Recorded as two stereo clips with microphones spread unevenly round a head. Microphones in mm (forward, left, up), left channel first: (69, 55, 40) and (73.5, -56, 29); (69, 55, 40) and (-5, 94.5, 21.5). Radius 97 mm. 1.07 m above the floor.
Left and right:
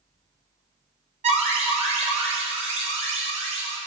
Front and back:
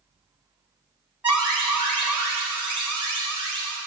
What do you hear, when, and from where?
1.2 s an alarm: 130° right, 4.5 m